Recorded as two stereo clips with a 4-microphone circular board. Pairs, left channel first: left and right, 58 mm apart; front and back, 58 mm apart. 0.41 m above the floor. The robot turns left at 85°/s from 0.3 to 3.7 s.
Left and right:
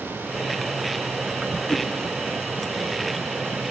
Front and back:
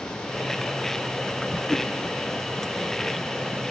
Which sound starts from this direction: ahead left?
A whoosh, at 1.7 s.